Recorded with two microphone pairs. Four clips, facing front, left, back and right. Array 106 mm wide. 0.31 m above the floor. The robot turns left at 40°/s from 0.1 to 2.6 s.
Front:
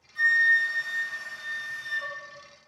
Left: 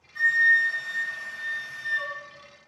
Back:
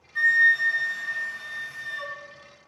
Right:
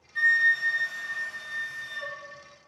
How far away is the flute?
About 0.5 m.